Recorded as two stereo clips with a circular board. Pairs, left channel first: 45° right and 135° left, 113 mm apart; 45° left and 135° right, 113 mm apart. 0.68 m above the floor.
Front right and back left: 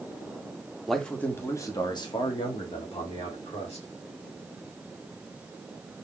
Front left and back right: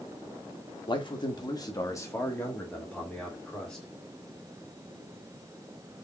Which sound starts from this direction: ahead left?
A man speaking, at 0.9 s.